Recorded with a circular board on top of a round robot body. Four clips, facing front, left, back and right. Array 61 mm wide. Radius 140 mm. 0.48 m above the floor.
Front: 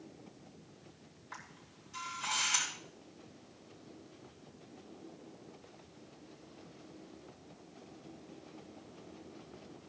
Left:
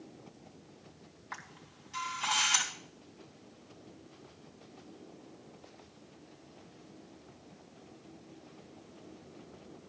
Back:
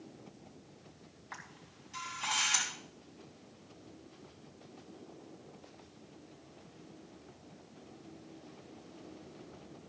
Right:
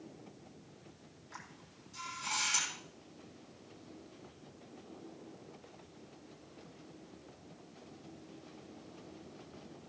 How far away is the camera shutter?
About 4.5 m.